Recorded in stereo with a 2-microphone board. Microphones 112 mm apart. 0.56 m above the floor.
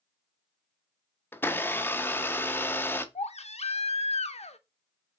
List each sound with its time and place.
1.3 s a blender: 20° left (ahead or behind), 0.6 m
3.1 s a baby crying: 70° left (ahead or behind), 0.6 m